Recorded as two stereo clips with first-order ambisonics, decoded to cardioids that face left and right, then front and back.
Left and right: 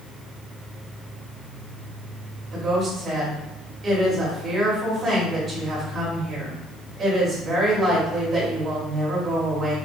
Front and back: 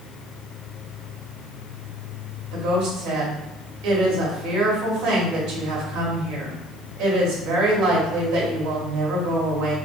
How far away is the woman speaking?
About 1.6 m.